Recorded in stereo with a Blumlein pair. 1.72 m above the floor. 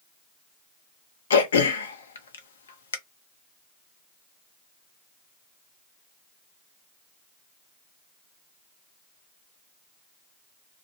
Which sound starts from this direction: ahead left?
Throat clearing, at 1.3 s.